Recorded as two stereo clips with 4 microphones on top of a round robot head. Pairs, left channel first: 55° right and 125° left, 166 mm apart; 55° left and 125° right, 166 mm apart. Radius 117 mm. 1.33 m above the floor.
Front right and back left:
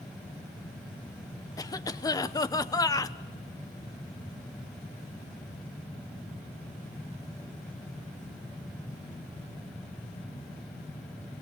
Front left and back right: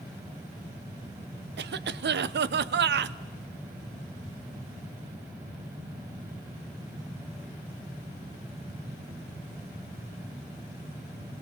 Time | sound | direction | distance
1.6 | a cough | 125° right | 0.8 m